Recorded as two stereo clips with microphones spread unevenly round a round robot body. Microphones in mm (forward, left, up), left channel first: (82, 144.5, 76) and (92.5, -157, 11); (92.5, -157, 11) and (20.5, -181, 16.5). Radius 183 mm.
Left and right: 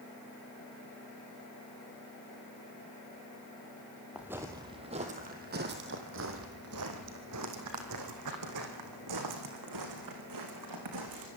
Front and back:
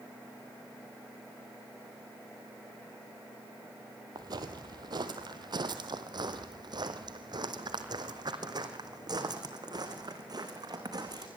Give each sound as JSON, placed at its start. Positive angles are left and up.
{"t": 4.2, "sound": "footsteps", "azimuth_deg": 175, "distance_m": 1.5}